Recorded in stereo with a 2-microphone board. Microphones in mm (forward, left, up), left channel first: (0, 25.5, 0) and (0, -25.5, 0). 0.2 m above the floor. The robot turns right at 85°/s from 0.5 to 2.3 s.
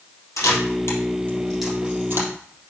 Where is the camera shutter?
80° left, 3.5 m; by 2.3 s 60° right (ahead or behind), 3.5 m.